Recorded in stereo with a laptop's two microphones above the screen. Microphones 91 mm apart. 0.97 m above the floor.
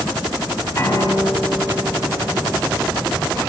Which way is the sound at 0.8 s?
30° left (ahead or behind).